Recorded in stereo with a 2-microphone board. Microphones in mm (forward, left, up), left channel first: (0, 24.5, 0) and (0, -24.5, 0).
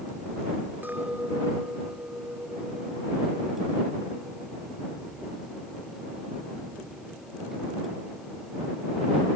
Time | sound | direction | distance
0.8 | a clink | 40° right (ahead or behind) | ?